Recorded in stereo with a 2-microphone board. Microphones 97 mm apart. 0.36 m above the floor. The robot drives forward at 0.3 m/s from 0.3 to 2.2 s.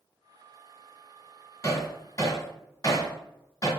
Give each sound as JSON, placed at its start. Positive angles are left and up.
{"t": 1.6, "sound": "hammering", "side_deg": 35, "distance_m": 1.8}